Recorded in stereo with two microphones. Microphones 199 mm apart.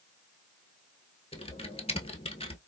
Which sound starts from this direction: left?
Typing on a keyboard, at 1.3 s.